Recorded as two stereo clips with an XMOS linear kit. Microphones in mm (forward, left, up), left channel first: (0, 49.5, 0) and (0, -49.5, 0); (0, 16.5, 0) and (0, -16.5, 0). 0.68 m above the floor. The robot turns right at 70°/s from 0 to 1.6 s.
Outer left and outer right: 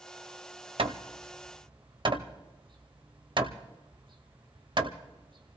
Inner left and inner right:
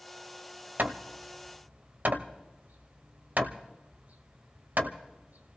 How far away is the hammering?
About 1.0 m.